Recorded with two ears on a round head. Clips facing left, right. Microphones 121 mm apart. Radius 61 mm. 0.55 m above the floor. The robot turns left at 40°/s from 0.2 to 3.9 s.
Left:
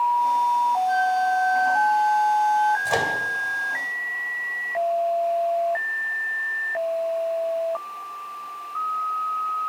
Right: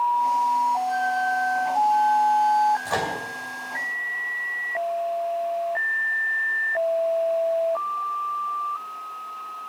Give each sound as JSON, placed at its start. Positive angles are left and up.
{"t": 0.9, "sound": "a flute", "azimuth_deg": 125, "distance_m": 6.0}
{"t": 2.9, "sound": "a microwave", "side_deg": 15, "distance_m": 2.5}